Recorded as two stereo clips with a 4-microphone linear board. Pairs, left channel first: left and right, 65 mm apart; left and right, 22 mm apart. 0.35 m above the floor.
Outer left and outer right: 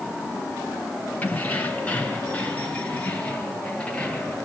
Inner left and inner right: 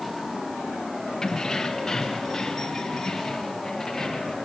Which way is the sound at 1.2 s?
25° left (ahead or behind).